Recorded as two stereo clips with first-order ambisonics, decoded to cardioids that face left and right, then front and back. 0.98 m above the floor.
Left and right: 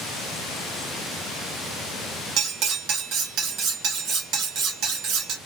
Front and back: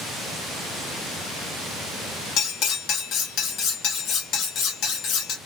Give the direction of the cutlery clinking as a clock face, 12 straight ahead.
2 o'clock.